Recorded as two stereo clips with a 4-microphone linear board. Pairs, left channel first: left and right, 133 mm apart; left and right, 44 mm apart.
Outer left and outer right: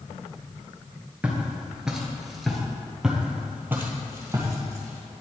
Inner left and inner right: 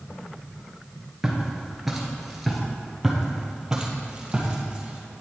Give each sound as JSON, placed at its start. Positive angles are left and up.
{"t": 1.2, "sound": "footsteps", "side_deg": -10, "distance_m": 1.5}
{"t": 3.0, "sound": "footsteps", "side_deg": -5, "distance_m": 1.5}